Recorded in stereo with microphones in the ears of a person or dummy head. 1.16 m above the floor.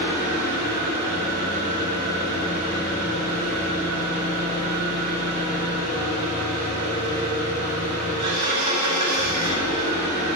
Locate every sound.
0.0 s an engine running: 50° right (ahead or behind), 4.5 m